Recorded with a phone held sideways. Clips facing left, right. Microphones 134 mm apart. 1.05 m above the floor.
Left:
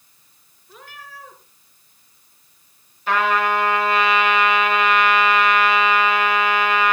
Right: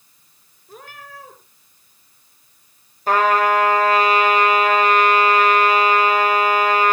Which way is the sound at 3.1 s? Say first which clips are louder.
Right 3 dB; 40° right (ahead or behind).